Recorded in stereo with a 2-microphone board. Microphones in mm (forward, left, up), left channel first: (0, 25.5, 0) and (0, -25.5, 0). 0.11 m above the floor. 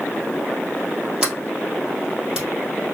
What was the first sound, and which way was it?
A sliding door, 10° right (ahead or behind).